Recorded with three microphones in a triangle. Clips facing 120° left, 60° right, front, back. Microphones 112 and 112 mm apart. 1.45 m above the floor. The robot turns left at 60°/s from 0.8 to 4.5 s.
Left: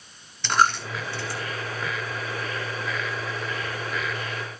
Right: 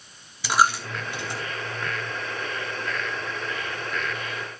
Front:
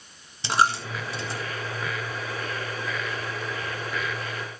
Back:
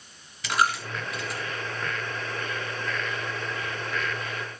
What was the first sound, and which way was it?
A dropped coin, 15° left.